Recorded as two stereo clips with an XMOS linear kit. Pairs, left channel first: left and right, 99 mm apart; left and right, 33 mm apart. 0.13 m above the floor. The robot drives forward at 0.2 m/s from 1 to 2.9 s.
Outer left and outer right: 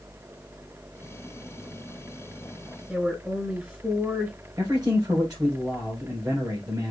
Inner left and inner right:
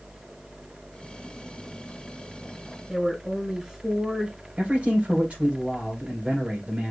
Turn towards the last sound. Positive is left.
turn(degrees=-45)  # may be behind; listen again after turning